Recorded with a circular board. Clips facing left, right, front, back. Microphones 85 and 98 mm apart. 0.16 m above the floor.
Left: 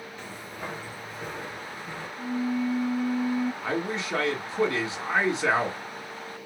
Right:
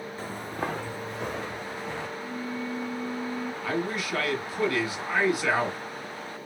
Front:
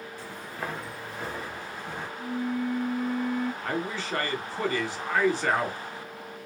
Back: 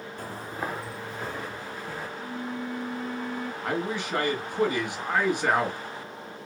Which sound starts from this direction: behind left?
A man speaking, at 3.6 s.